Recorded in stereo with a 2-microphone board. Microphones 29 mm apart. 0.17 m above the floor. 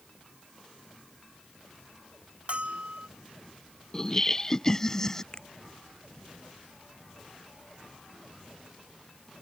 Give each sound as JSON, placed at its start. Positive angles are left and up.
{"t": 2.5, "sound": "a bell", "side_deg": -45}
{"t": 3.9, "sound": "laughter", "side_deg": 20}
{"t": 5.3, "sound": "a finger snap", "side_deg": 30}